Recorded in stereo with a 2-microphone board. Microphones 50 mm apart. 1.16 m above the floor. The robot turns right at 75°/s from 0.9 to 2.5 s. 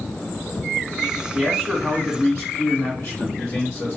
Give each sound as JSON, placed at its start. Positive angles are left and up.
{"t": 1.4, "sound": "a man speaking", "azimuth_deg": -30, "distance_m": 1.3}